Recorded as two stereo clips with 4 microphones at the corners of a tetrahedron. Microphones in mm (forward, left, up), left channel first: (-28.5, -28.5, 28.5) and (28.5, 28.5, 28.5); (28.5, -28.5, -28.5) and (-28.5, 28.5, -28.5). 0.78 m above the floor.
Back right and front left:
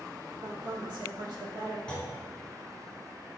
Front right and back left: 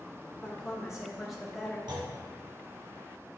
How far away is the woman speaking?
About 2 m.